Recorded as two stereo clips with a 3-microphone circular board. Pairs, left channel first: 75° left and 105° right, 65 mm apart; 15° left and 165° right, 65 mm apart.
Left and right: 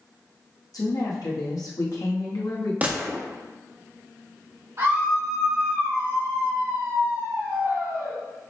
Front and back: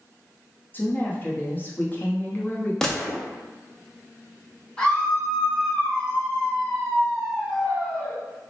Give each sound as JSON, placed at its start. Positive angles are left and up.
{"t": 0.7, "sound": "a woman speaking", "azimuth_deg": 75, "distance_m": 0.9}
{"t": 2.8, "sound": "a gunshot", "azimuth_deg": -60, "distance_m": 0.6}
{"t": 4.8, "sound": "a scream", "azimuth_deg": -75, "distance_m": 1.5}